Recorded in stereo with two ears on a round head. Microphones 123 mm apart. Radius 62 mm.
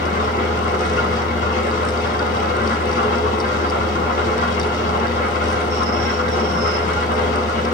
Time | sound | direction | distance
0.0 | an engine running | 60° left (ahead or behind) | 9 m